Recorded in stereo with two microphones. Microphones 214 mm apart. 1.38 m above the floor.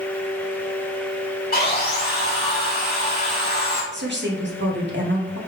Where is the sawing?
45° left (ahead or behind), 3.5 m.